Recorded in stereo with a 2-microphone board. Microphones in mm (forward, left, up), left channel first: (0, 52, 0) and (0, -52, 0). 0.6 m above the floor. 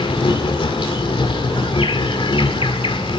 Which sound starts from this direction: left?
An insect, at 0.0 s.